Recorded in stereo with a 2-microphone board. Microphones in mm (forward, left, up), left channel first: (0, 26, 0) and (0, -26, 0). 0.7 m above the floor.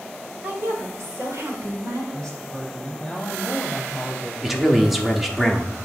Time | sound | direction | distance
0.4 | a woman speaking | 35° right (ahead or behind) | 1.4 m
2.1 | a woman speaking | 20° left (ahead or behind) | 4 m
4.4 | a man speaking | 5° right (ahead or behind) | 0.9 m